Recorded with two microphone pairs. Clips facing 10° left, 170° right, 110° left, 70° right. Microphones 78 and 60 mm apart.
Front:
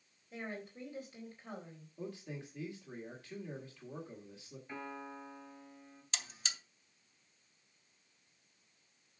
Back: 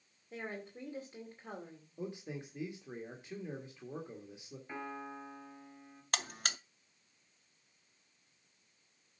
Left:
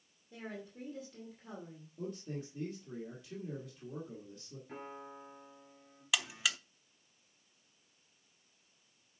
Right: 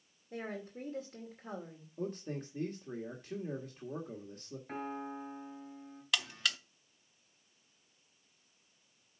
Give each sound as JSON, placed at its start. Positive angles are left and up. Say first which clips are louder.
{"t": 0.3, "sound": "a woman speaking", "louder": "back 1 dB, right 4 dB", "azimuth_deg": -110, "distance_m": 2.5}
{"t": 2.0, "sound": "a man speaking", "louder": "back 2 dB, right 3 dB", "azimuth_deg": -100, "distance_m": 1.9}
{"t": 4.7, "sound": "a piano", "louder": "back 2 dB, right 7 dB", "azimuth_deg": -95, "distance_m": 3.5}
{"t": 6.1, "sound": "a buzzer", "louder": "back 7 dB, even", "azimuth_deg": -165, "distance_m": 0.5}